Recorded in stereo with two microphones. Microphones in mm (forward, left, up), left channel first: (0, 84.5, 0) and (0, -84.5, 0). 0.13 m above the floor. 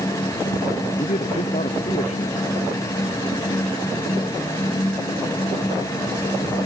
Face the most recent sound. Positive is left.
turn(degrees=45)  # may be behind; listen again after turning